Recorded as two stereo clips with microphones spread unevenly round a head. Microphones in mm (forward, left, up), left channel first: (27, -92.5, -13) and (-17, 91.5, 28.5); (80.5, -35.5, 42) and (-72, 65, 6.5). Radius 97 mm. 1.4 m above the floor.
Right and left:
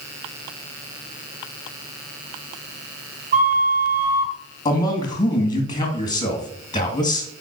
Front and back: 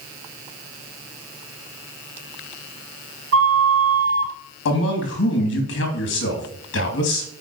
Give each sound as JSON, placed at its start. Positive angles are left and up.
{"t": 3.3, "sound": "a flute", "azimuth_deg": 150, "distance_m": 1.5}
{"t": 4.7, "sound": "a man speaking", "azimuth_deg": -5, "distance_m": 2.5}